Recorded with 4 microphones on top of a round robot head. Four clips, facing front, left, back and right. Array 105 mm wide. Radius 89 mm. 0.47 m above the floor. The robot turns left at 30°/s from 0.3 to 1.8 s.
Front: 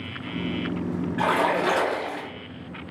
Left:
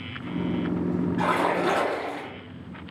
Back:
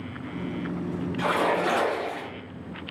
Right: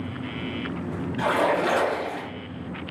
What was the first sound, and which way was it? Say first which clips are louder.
A splash: right 3 dB, front 2 dB; 30° left.